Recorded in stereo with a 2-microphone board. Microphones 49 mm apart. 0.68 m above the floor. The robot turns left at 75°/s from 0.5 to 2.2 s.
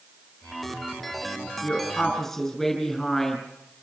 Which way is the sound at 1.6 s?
50° left.